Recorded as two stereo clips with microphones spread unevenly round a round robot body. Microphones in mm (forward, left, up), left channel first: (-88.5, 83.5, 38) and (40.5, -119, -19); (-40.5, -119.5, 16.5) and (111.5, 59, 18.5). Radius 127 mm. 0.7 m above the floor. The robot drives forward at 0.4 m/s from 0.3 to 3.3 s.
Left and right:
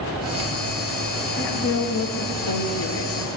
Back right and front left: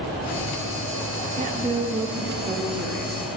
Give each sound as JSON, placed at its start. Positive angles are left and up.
{"t": 1.4, "sound": "a woman speaking", "azimuth_deg": 80, "distance_m": 0.9}